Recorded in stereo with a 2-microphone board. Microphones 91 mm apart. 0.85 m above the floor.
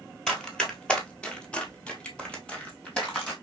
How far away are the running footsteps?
About 0.9 m.